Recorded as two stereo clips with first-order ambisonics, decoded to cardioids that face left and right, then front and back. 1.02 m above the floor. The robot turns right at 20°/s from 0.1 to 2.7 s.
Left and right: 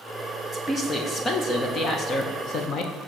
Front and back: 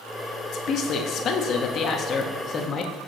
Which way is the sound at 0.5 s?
15° left.